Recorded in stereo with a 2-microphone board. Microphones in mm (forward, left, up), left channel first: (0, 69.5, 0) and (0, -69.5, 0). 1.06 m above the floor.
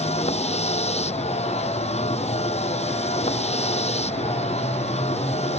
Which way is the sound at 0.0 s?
50° left (ahead or behind).